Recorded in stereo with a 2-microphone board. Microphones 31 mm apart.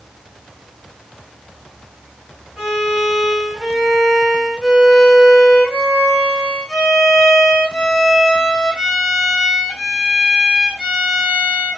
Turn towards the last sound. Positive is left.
turn(degrees=-10)  # may be behind; listen again after turning